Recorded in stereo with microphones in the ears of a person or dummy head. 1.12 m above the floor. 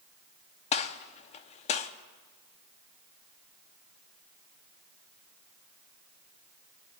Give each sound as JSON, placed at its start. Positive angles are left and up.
{"t": 0.7, "sound": "a gunshot", "side_deg": 25, "distance_m": 0.6}